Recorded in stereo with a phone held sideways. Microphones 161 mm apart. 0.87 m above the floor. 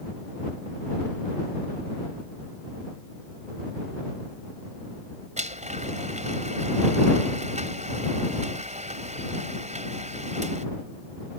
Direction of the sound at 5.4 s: 45° right (ahead or behind).